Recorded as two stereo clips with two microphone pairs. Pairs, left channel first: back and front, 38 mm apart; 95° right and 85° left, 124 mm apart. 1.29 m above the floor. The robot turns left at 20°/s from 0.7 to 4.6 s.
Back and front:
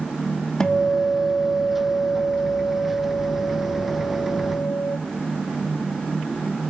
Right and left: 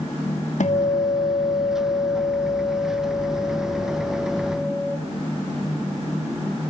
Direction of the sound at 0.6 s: 110° right.